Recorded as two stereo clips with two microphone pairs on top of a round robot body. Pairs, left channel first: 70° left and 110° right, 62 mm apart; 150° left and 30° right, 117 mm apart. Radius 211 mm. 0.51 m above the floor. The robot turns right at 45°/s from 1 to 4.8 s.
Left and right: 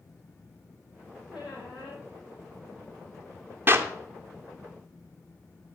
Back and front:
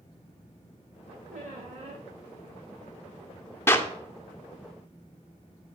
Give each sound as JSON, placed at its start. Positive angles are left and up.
{"t": 1.3, "sound": "a squeak", "azimuth_deg": -40, "distance_m": 1.2}
{"t": 3.7, "sound": "a clap", "azimuth_deg": -150, "distance_m": 1.0}